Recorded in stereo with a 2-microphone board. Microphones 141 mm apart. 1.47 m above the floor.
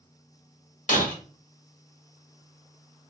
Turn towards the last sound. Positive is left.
turn(degrees=65)  # may be behind; listen again after turning